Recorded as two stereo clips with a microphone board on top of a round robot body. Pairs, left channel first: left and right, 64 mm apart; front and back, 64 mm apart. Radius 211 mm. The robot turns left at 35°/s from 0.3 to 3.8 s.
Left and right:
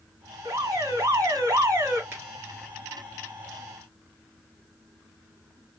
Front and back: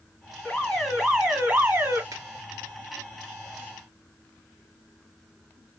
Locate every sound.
0.5 s an alarm: 80° right, 1.6 m; by 2.0 s 135° right, 1.6 m
2.1 s a finger snap: 150° right, 2.5 m; by 2.2 s 155° right, 2.5 m